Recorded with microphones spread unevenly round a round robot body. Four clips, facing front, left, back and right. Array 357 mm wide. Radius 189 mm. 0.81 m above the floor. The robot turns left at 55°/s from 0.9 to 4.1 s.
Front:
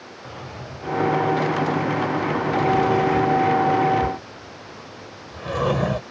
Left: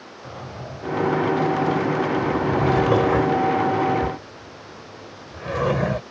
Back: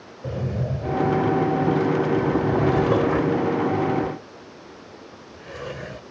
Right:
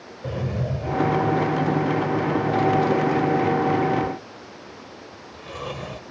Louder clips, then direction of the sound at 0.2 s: Right 8 dB, back 9 dB; 140° right.